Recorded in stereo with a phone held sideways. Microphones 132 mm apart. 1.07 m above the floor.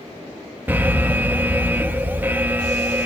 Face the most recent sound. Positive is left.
turn(degrees=-15)  # may be behind; listen again after turning